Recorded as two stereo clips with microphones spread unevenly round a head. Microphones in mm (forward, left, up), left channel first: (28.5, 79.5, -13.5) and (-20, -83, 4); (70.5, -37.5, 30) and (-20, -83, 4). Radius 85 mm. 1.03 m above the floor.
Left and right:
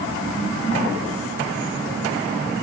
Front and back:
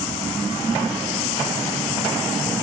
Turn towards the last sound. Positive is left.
No sound to turn to.